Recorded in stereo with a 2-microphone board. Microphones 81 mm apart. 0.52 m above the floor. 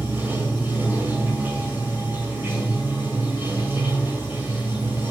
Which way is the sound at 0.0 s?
20° right (ahead or behind).